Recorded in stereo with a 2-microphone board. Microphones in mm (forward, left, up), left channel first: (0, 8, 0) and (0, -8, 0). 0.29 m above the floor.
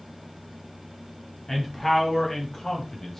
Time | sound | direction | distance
1.5 | a man speaking | 25° left (ahead or behind) | 1.9 m